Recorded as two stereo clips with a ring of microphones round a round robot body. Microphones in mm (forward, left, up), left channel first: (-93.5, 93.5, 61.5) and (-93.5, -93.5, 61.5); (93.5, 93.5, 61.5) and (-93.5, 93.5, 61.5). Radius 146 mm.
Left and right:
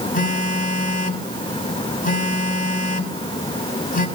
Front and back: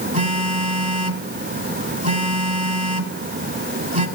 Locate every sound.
0.1 s a phone buzzing: 135° left, 3 m